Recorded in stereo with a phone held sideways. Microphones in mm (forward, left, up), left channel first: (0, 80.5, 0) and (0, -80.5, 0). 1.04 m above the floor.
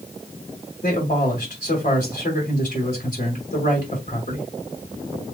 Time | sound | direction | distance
0.8 | a man speaking | 55° left (ahead or behind) | 2 m